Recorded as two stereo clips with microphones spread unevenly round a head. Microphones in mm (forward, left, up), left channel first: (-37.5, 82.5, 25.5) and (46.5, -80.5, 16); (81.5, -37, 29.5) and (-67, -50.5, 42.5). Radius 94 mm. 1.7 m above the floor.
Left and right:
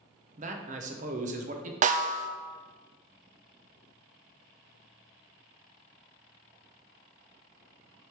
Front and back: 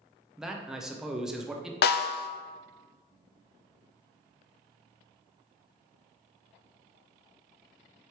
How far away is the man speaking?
About 0.7 m.